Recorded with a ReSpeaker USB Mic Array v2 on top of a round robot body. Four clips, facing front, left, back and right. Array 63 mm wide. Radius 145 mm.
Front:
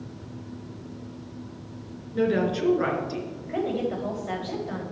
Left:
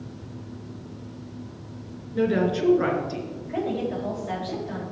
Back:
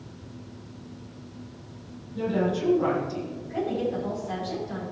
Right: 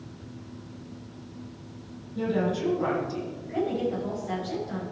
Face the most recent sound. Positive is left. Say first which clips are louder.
# even, front 1 dB
turn(degrees=5)